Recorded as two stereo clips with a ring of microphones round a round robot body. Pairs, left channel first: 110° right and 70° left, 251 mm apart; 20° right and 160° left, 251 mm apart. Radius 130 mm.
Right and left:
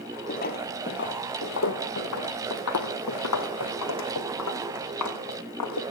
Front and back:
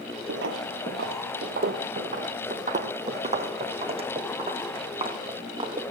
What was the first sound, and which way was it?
Footsteps, 165° right.